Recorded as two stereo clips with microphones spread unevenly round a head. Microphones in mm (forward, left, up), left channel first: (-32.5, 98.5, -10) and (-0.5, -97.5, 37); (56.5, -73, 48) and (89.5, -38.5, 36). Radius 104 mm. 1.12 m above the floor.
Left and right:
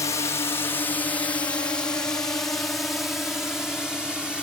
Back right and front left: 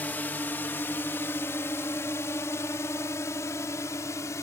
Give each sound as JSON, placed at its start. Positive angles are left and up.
{"t": 0.0, "sound": "a drone", "azimuth_deg": 165}